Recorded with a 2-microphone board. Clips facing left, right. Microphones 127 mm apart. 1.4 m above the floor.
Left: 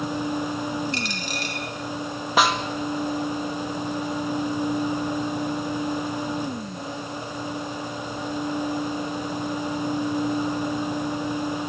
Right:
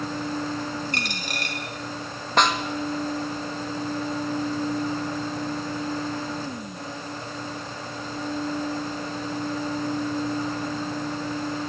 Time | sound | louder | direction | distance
0.9 | a dropped coin | left 2 dB | 55° right (ahead or behind) | 5.5 m
2.4 | a snare drum | left 1 dB | 5° left (ahead or behind) | 2 m